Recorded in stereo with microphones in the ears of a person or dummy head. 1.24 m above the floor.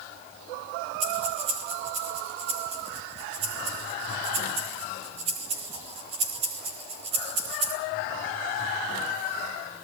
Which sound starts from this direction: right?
Breathing, at 1.0 s.